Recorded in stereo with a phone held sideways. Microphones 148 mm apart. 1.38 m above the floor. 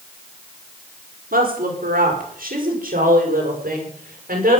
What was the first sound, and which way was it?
A woman speaking, 85° right.